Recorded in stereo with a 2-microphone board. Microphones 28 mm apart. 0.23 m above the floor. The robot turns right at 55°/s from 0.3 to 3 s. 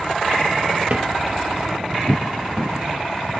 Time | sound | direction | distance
0.9 | a drawer | 55° right (ahead or behind) | 2.5 m